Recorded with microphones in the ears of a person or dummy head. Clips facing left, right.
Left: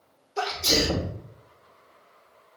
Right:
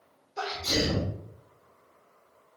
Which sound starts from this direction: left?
A sneeze, at 0.4 s.